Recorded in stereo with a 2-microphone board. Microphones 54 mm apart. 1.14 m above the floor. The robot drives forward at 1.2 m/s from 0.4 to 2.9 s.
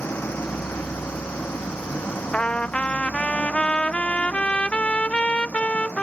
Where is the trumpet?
20° left (ahead or behind).